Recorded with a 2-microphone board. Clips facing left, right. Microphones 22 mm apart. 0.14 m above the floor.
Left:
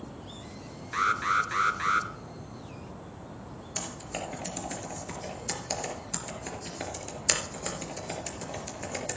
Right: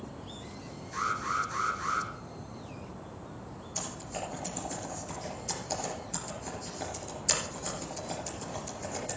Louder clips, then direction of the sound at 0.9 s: Left 5 dB; 50° left (ahead or behind).